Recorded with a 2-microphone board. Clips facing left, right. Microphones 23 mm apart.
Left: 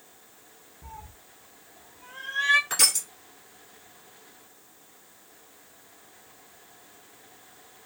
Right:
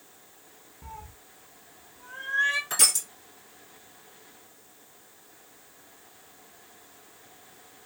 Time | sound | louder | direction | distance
0.8 | a cat meowing | right 1 dB | 20° right (ahead or behind) | 0.6 m
2.7 | crushing | left 1 dB | 20° left (ahead or behind) | 2.0 m